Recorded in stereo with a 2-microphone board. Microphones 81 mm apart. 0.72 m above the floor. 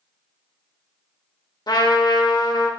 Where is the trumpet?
60° left (ahead or behind), 0.6 m.